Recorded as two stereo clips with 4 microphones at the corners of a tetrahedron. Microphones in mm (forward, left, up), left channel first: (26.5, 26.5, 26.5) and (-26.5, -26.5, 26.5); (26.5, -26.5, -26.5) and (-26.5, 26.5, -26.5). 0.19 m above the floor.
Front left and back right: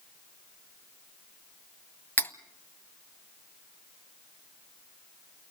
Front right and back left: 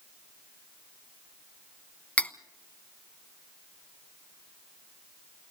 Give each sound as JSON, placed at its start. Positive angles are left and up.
{"t": 2.2, "sound": "cutlery clinking", "azimuth_deg": 5, "distance_m": 0.6}